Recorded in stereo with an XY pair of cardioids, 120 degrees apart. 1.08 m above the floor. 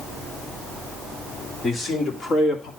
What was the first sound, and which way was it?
A man speaking, 45° left.